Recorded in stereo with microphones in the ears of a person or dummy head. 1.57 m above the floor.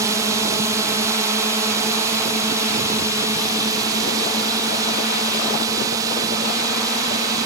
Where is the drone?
15° right (ahead or behind); by 7.5 s 20° right (ahead or behind).